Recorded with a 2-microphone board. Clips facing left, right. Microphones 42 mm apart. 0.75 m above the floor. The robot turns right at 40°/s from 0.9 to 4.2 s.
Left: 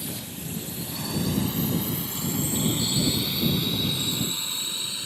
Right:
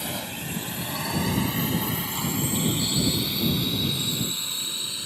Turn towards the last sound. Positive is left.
turn(degrees=25)  # may be behind; listen again after turning